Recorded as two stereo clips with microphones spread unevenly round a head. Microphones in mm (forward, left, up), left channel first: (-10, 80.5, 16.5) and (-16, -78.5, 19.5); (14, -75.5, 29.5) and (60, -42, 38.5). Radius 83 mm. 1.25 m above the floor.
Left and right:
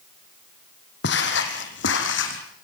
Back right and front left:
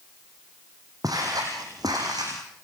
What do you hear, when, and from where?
1.0 s footsteps: 100° left, 3.5 m; by 2.4 s 90° left, 4.5 m